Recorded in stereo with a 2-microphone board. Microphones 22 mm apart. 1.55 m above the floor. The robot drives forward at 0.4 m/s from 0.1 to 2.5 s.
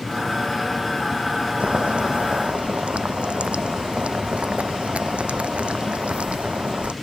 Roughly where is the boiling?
Right.